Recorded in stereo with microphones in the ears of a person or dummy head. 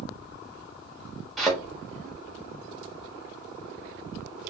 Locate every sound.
1.4 s a thud: centre (ahead or behind), 1.5 m